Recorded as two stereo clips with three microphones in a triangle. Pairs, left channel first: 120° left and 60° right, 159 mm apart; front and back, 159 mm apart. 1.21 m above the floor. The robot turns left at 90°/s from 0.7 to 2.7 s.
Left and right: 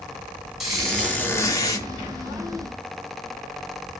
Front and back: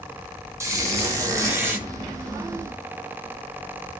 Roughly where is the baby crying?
No baby crying in this recording.